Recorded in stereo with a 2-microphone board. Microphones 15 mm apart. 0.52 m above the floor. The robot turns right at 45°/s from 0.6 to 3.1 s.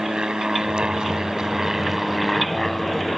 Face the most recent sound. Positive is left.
turn(degrees=30)